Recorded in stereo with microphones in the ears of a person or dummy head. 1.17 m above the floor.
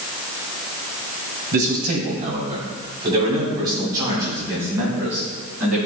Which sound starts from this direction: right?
A man speaking, at 1.5 s.